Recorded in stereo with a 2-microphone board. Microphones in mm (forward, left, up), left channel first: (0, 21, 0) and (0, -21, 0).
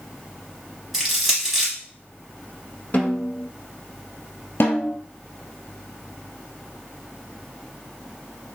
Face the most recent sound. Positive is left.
turn(degrees=70)  # may be behind; listen again after turning